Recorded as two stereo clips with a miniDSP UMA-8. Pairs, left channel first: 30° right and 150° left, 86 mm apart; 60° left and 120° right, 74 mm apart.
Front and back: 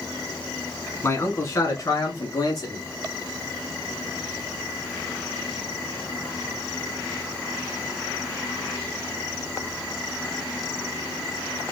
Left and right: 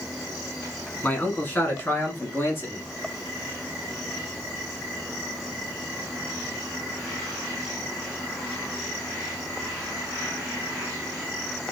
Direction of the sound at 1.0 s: 10° left.